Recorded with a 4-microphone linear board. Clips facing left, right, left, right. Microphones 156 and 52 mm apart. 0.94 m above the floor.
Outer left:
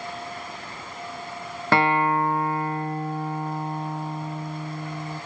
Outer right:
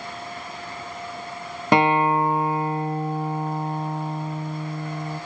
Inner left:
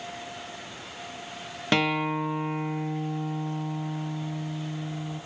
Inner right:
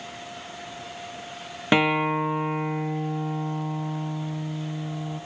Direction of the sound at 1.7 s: 20° right (ahead or behind).